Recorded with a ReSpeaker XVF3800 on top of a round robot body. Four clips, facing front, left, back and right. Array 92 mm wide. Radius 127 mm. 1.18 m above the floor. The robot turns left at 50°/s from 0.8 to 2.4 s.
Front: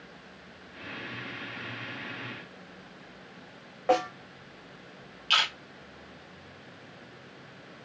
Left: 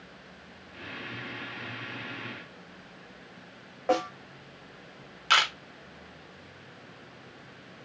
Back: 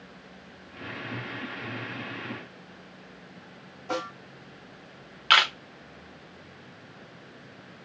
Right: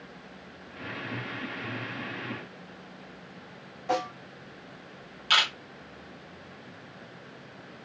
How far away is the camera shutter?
About 1.1 m.